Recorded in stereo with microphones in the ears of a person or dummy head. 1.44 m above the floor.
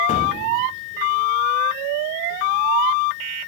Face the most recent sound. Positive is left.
turn(degrees=40)  # may be behind; listen again after turning